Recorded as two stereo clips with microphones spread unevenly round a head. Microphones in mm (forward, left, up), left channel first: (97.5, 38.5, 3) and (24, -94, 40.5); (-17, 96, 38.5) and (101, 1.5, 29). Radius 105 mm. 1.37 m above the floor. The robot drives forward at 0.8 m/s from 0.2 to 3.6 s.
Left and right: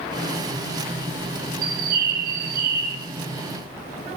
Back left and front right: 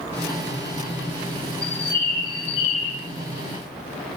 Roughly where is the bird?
Behind right.